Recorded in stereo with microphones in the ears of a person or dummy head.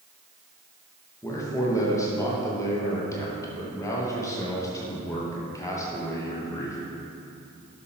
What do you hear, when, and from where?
1.2 s a man speaking: 20° left (ahead or behind), 1.2 m